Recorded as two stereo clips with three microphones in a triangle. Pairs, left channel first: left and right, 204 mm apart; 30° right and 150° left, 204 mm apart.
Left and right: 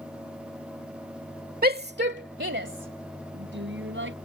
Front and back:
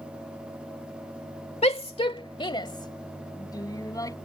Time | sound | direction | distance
1.6 | a shout | 80° right | ?